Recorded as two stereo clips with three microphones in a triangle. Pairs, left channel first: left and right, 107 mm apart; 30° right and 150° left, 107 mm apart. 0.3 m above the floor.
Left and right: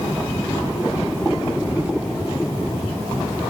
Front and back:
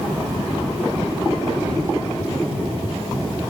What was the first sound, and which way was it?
Keys jangling, 165° right.